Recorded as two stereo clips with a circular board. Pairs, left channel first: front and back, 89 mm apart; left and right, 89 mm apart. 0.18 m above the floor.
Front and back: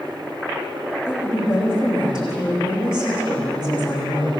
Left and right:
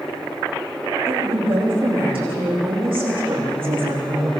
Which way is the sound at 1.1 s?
100° right.